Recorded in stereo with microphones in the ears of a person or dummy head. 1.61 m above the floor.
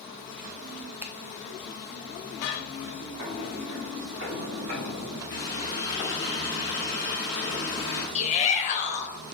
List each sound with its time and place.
1.0 s a finger snap: 5° right (ahead or behind), 0.5 m
3.2 s footsteps: 55° right (ahead or behind), 3 m; by 5.2 s 60° right (ahead or behind), 4 m
5.3 s a running tap: 20° left (ahead or behind), 3 m
8.2 s a shout: 40° left (ahead or behind), 1.6 m